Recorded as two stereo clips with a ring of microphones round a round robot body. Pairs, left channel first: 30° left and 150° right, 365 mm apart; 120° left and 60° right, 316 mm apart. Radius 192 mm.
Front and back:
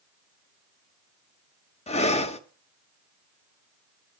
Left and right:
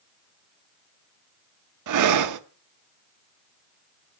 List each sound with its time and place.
1.9 s breathing: 40° right, 0.9 m